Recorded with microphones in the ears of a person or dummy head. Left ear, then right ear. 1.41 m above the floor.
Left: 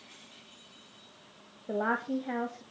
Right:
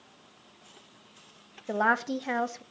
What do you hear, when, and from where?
1.7 s a woman speaking: 70° right (ahead or behind), 1.5 m